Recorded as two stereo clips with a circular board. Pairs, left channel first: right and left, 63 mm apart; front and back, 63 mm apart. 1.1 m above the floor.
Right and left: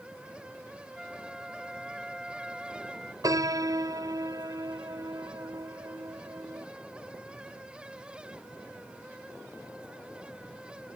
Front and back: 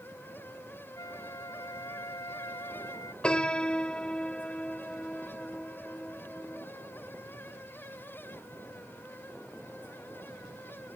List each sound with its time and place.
0.9 s a flute: 10° left
3.2 s a piano: 75° left